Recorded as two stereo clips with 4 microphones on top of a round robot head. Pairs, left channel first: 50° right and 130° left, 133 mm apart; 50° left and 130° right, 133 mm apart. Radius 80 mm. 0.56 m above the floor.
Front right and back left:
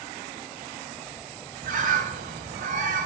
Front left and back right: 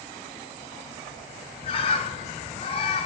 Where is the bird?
100° left, 0.6 m.